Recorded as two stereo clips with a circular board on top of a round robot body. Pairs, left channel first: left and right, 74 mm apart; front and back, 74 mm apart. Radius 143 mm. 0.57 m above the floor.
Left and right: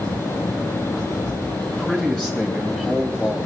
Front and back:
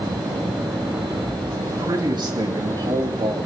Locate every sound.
1.6 s a man speaking: 170° left, 4 m